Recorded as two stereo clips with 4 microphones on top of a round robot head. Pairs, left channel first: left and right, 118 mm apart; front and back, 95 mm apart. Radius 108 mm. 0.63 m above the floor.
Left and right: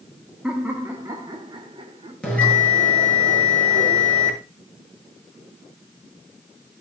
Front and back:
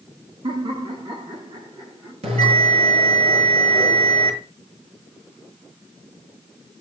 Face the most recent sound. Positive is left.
turn(degrees=170)